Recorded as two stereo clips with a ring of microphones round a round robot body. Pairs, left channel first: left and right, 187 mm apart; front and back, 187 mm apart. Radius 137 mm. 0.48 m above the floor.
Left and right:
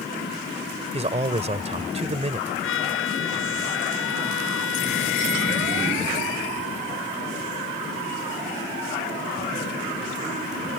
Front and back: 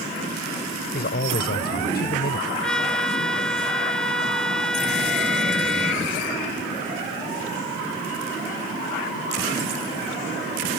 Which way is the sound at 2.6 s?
85° left.